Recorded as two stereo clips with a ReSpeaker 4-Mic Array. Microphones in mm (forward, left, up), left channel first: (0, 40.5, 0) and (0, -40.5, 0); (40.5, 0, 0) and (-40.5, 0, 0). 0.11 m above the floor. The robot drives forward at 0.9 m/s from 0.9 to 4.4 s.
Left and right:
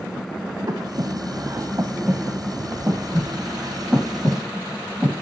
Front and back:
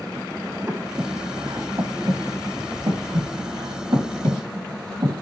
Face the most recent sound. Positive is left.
turn(degrees=-165)